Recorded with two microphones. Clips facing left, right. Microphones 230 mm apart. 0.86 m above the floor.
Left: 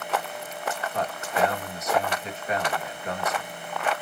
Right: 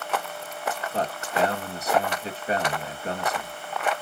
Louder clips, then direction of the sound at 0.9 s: Right 2 dB; 30° right (ahead or behind).